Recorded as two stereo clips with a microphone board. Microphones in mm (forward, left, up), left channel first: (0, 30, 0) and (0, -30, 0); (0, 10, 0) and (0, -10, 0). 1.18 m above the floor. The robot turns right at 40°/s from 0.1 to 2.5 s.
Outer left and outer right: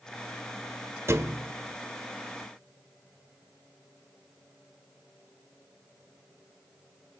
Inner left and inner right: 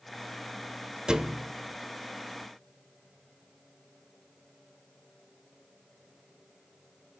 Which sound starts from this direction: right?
A thud, at 1.1 s.